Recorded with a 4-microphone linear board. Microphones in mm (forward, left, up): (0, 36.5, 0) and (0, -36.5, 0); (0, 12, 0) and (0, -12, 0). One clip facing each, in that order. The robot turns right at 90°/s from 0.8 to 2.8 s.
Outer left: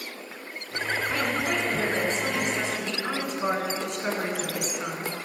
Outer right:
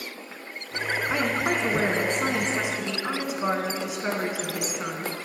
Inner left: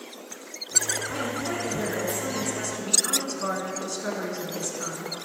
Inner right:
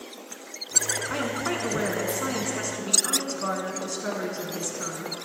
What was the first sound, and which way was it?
A woman speaking, 160° right.